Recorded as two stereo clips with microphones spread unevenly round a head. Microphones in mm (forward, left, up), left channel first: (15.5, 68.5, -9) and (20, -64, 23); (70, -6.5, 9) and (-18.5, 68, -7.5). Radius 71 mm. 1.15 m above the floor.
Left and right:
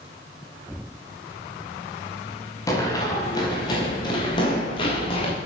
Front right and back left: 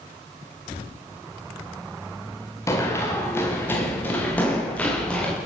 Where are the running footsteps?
25° left, 9.5 m; by 5.3 s 40° left, 12.5 m.